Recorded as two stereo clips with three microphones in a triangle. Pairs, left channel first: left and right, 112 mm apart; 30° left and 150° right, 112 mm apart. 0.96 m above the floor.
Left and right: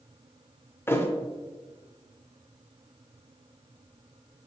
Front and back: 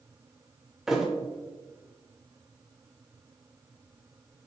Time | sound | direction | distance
0.9 | a thud | 125° left | 0.6 m